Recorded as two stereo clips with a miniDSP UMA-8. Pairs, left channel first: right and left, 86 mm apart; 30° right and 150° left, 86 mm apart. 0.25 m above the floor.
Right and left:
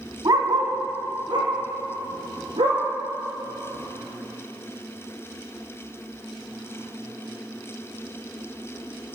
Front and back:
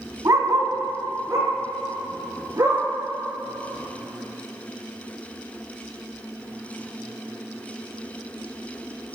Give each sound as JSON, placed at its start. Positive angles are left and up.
{"t": 0.2, "sound": "a dog barking", "azimuth_deg": 115, "distance_m": 0.7}